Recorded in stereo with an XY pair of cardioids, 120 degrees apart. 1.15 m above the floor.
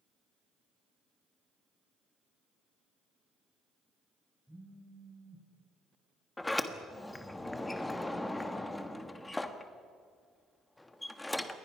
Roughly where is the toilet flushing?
I don't hear a toilet flushing.